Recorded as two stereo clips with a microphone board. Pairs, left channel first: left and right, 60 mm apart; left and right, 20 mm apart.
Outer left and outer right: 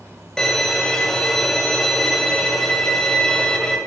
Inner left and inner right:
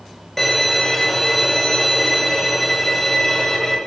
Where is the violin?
10° left (ahead or behind), 1.4 m.